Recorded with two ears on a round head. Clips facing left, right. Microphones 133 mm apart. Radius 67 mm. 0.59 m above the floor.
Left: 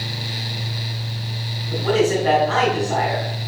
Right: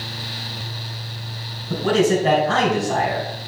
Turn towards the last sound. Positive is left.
turn(degrees=-45)  # may be behind; listen again after turning